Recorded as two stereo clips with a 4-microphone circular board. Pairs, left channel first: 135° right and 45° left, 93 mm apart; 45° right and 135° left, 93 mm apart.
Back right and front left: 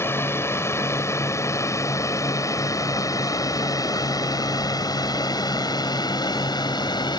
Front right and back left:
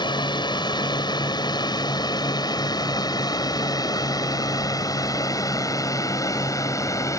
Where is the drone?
75° right; by 7.2 s 100° right.